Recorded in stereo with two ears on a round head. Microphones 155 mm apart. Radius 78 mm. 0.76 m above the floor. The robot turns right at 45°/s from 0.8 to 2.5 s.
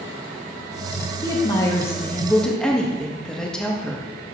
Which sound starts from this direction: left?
A woman speaking, at 1.2 s.